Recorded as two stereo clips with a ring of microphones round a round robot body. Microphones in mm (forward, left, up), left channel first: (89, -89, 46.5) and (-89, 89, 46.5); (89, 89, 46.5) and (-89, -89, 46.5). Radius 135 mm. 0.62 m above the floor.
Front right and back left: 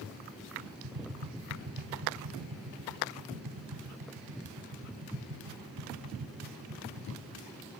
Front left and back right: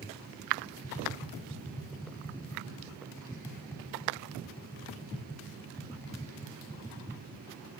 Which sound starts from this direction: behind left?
Tapping, at 0.8 s.